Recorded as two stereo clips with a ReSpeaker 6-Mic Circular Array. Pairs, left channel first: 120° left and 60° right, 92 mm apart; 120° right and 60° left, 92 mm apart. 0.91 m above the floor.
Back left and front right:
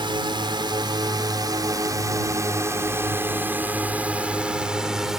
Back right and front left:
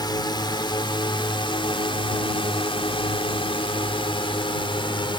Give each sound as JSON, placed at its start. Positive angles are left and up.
{"t": 0.0, "sound": "a drone", "azimuth_deg": -85}